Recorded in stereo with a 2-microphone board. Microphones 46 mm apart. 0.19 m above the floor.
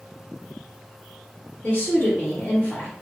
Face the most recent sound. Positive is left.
turn(degrees=35)  # may be behind; listen again after turning